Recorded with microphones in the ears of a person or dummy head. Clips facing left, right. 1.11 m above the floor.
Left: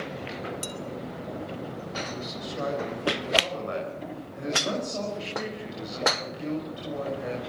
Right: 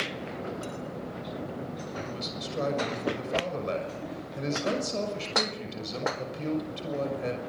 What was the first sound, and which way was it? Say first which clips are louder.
Dishes clattering: even; 85° left.